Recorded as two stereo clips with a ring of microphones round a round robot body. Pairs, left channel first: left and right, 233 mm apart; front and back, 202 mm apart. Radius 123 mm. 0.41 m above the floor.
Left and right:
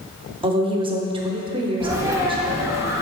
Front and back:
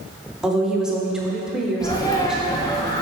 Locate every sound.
0.4 s a woman speaking: 100° right, 0.9 m
1.8 s a sneeze: 35° right, 1.3 m